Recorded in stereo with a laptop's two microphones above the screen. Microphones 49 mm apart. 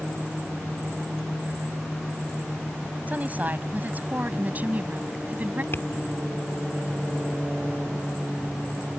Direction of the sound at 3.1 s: 35° right (ahead or behind).